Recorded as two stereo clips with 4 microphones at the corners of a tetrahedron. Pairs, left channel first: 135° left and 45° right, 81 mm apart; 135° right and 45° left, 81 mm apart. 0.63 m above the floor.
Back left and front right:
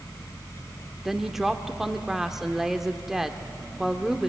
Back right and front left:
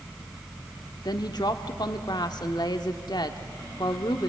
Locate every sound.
1.1 s a woman speaking: 130° right, 1.4 m